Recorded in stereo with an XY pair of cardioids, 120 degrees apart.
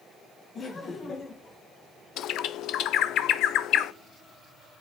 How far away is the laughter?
About 2 m.